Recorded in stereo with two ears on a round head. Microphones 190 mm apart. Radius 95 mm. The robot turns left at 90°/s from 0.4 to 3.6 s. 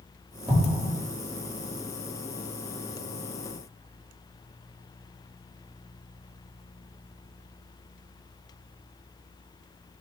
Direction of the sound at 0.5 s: 20° right (ahead or behind).